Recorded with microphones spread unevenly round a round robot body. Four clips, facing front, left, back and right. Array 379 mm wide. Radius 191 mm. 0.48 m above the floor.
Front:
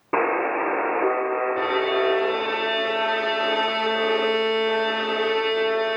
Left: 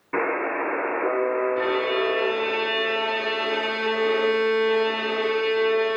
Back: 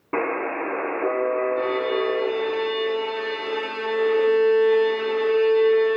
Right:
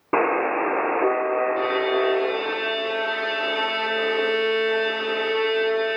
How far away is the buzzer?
About 0.7 m.